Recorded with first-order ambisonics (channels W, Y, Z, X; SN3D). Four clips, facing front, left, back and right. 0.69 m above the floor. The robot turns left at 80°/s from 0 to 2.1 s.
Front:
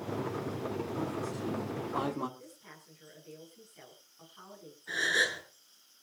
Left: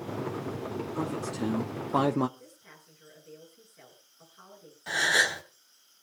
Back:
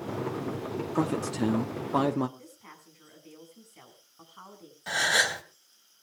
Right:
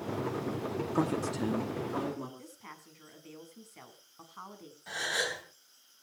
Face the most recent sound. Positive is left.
turn(degrees=160)